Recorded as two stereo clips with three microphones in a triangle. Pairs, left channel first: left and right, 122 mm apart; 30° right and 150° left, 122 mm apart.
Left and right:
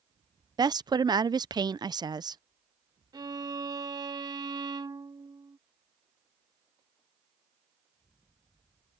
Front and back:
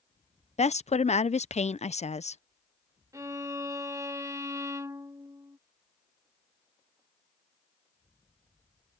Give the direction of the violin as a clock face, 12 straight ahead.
5 o'clock.